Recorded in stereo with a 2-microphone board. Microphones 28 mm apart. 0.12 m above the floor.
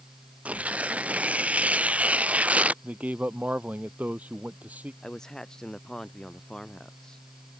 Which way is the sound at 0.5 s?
55° right (ahead or behind).